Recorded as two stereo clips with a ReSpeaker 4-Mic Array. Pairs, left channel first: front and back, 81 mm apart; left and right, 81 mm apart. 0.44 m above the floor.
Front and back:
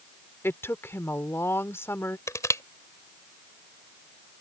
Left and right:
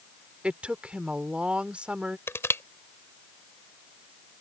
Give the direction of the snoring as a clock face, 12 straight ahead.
No snoring in this recording.